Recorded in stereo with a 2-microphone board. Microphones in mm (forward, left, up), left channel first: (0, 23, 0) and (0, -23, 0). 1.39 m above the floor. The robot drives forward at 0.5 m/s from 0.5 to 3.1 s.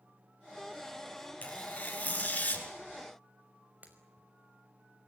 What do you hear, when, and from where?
1.4 s tearing paper: 35° left (ahead or behind), 5.5 m
3.8 s breaking glass: 35° right (ahead or behind), 5 m